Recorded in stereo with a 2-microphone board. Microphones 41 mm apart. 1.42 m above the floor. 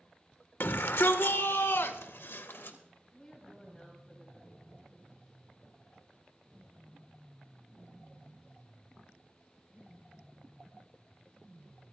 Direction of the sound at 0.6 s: 65° left (ahead or behind).